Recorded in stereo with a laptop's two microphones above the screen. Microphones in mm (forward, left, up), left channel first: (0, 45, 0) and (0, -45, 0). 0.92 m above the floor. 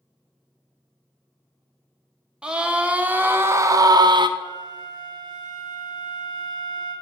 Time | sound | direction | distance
2.4 | a scream | 10° right (ahead or behind) | 1.5 m
4.4 | a flute | 55° right (ahead or behind) | 2 m